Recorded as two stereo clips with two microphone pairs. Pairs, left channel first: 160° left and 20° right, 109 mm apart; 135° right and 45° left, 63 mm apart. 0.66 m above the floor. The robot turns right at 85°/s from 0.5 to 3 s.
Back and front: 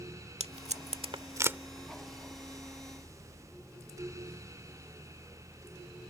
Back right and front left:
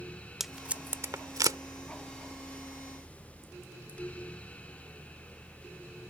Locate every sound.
0.4 s tape being pulled: 40° right; by 1.6 s 55° left